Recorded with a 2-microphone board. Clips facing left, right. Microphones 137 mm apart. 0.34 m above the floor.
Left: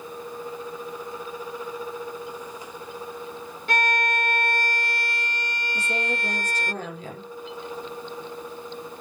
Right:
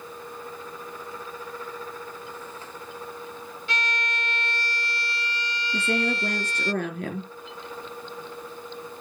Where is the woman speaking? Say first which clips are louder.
Right 4 dB; 65° right (ahead or behind), 4.5 m.